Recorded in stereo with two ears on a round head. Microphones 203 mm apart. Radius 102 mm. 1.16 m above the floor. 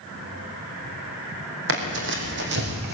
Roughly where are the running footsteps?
Right.